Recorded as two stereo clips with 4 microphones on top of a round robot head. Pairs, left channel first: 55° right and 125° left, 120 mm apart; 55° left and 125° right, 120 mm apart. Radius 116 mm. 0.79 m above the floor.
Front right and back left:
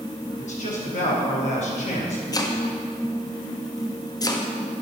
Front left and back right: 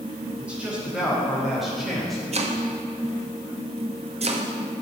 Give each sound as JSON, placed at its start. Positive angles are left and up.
{"t": 0.4, "sound": "a man speaking", "azimuth_deg": -40, "distance_m": 4.0}
{"t": 2.3, "sound": "chopping", "azimuth_deg": -110, "distance_m": 1.6}